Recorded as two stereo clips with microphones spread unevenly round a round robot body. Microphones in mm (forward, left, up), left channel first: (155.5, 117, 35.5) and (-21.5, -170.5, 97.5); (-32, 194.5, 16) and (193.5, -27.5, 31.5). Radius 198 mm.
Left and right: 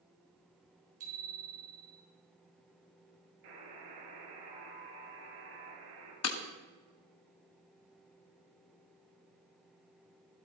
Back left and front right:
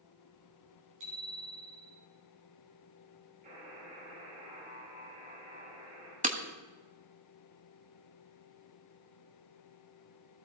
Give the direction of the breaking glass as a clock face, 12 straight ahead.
11 o'clock.